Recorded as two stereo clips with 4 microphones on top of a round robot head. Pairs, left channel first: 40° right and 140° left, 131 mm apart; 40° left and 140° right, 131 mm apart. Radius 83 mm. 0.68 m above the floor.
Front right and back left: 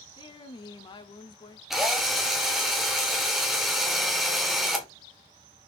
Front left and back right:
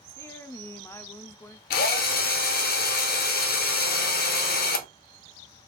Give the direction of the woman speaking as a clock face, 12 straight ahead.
1 o'clock.